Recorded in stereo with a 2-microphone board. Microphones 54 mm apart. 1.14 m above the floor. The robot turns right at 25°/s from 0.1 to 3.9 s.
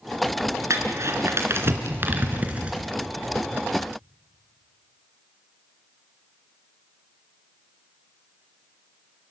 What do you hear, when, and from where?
0.7 s crumpling: 70° right (ahead or behind), 3 m; by 2.9 s 20° right (ahead or behind), 3 m